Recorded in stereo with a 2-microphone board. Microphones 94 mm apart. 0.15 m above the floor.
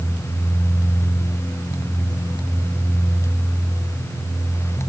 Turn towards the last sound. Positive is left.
No sound to turn to.